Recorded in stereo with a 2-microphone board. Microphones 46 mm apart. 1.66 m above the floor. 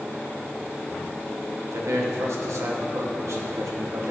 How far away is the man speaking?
About 1.7 m.